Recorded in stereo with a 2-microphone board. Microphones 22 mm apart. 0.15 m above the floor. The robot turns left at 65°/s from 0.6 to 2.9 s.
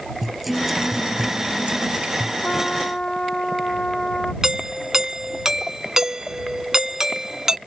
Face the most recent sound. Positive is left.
turn(degrees=-25)  # may be behind; listen again after turning